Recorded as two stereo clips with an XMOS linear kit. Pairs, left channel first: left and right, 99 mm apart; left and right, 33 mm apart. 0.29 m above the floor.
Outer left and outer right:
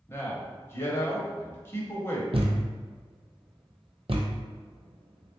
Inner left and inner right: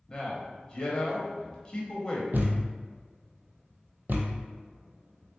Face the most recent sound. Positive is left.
turn(degrees=-70)  # may be behind; listen again after turning